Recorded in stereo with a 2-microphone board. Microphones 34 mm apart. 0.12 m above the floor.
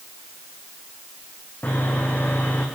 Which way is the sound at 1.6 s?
75° left (ahead or behind).